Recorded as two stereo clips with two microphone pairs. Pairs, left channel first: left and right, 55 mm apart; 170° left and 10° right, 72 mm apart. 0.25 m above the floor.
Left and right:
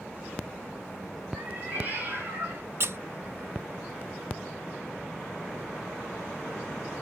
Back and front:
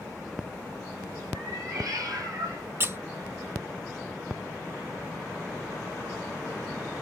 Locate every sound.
1.3 s a cat meowing: 35° right, 3.5 m; by 2.6 s 45° right, 2.5 m
2.8 s a squeak: 60° right, 0.5 m